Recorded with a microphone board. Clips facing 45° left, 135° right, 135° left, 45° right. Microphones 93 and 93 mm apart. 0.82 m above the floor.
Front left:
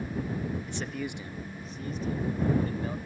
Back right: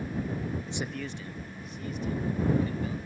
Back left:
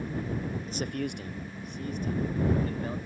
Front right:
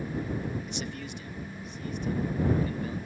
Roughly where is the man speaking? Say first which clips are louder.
Even, back left 4 dB; behind.